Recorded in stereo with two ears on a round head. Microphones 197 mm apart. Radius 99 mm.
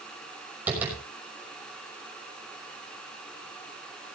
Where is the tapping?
10° right (ahead or behind), 6 m.